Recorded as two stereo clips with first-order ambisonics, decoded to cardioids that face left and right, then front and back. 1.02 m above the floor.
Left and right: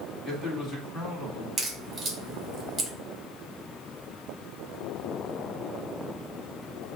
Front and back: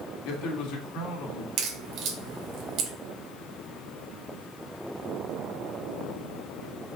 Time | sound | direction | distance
0.2 | a man speaking | 15° left | 1.6 m
1.6 | a crack | 165° right | 1.1 m